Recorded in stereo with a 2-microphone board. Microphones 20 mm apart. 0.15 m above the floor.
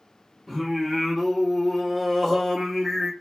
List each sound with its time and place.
0.5 s singing: 15° right (ahead or behind), 1.4 m